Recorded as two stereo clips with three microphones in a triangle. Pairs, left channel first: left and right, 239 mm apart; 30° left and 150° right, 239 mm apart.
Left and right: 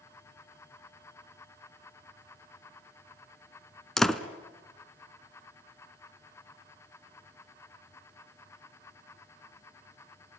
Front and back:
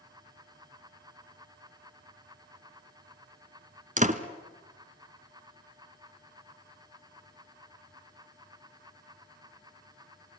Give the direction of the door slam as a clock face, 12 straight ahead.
6 o'clock.